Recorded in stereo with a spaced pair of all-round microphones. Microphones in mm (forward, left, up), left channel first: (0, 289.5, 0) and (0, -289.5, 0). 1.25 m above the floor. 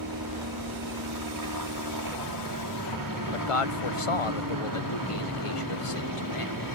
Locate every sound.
0.0 s a helicopter: 35° right (ahead or behind)
3.3 s a man speaking: 65° left (ahead or behind)